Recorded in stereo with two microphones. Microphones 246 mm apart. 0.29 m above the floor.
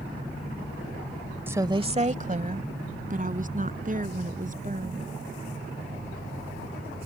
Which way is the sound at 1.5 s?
10° right (ahead or behind).